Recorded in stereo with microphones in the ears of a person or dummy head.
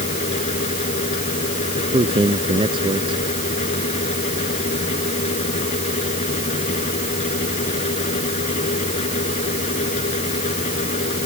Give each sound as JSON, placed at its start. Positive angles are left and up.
{"t": 0.0, "sound": "a fan", "side_deg": 35}
{"t": 1.8, "sound": "a man speaking", "side_deg": -20}